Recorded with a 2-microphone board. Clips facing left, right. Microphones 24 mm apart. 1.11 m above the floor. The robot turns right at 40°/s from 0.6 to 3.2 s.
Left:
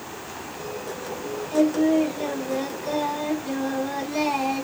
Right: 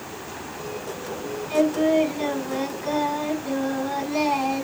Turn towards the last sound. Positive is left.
turn(degrees=-15)